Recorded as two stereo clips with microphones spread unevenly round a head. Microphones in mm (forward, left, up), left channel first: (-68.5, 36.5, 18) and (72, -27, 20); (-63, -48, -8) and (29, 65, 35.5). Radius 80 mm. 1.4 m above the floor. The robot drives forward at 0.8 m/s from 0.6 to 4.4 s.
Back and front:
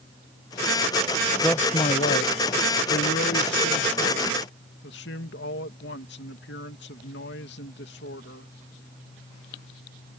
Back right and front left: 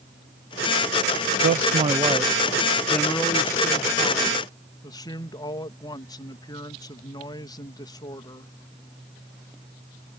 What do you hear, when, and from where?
1.4 s a man speaking: 70° left; by 8.5 s 170° left